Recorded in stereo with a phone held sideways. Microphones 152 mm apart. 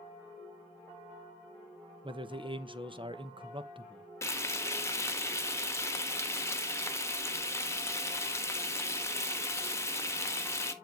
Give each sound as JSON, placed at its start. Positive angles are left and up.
{"t": 2.0, "sound": "a man speaking", "side_deg": -35, "distance_m": 0.8}
{"t": 4.2, "sound": "frying", "side_deg": 20, "distance_m": 1.2}